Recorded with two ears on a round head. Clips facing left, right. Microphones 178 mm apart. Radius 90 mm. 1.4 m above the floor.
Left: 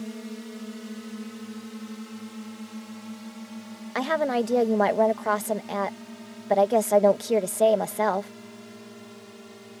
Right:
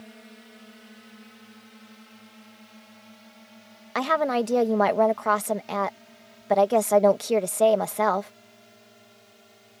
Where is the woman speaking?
5° left (ahead or behind).